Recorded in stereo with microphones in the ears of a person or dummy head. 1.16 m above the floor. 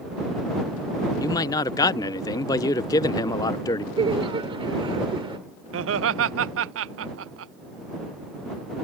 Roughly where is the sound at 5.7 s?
Right.